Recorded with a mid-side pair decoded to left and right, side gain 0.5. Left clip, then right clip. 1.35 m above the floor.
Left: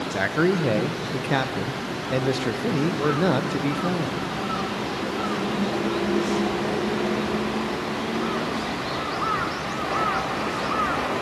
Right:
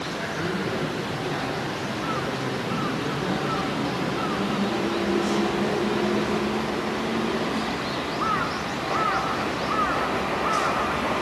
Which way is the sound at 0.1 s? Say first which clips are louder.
Left 10 dB; 65° left.